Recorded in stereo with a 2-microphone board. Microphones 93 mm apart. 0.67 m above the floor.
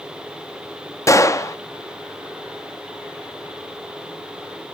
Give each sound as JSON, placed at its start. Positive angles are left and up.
{"t": 1.1, "sound": "a gunshot", "side_deg": 35, "distance_m": 0.5}